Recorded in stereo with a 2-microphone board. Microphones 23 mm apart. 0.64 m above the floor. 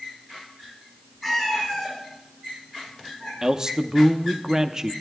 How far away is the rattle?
No rattle in this recording.